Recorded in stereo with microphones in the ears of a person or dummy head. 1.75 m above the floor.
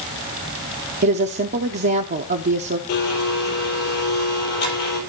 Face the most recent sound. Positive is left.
turn(degrees=55)  # may be behind; listen again after turning